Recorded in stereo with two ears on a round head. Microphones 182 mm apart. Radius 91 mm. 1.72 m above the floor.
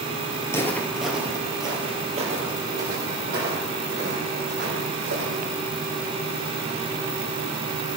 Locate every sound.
0.4 s footsteps: 20° left (ahead or behind), 2 m; by 5.5 s 70° right (ahead or behind), 6 m